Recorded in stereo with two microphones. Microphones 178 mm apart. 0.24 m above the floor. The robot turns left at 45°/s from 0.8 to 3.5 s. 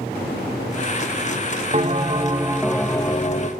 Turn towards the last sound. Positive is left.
turn(degrees=140)